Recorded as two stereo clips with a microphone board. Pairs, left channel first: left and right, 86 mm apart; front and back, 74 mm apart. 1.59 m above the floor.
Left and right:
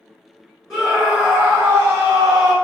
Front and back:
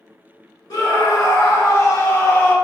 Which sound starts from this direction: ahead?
A scream, at 0.7 s.